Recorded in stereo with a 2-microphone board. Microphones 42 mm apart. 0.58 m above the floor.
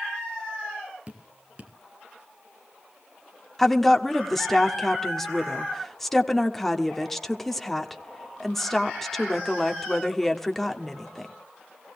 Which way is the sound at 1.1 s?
30° right (ahead or behind).